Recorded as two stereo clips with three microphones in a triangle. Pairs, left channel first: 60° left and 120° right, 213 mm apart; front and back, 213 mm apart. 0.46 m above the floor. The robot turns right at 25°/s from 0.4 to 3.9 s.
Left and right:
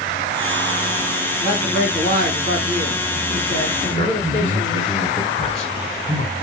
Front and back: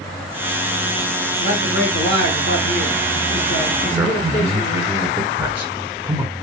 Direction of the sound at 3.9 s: 105° left.